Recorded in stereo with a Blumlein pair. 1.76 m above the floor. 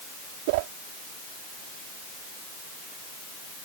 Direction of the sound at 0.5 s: 50° right.